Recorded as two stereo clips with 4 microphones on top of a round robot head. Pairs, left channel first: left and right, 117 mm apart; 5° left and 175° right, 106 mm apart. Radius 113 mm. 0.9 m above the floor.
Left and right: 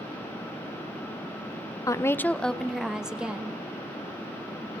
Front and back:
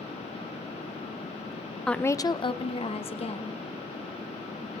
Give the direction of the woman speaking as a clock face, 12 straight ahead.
9 o'clock.